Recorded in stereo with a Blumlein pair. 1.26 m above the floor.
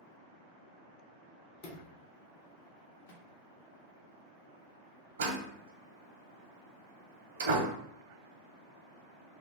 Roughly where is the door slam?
Ahead right.